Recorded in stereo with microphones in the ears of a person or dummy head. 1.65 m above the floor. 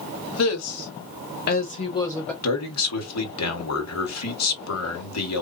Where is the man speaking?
85° left, 1.3 m.